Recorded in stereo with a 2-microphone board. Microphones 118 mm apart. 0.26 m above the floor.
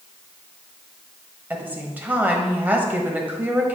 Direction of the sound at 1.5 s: 15° right (ahead or behind).